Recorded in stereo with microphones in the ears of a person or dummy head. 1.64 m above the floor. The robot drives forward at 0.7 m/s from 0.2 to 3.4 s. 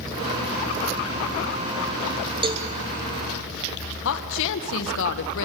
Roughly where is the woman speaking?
Left.